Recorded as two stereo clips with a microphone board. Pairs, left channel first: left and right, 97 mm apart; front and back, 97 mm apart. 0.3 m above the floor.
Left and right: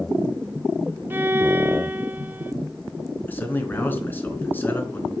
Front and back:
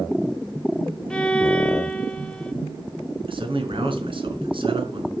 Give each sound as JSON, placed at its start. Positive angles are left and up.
{"t": 1.1, "sound": "a violin", "azimuth_deg": -65, "distance_m": 1.0}
{"t": 3.3, "sound": "a man speaking", "azimuth_deg": 160, "distance_m": 4.0}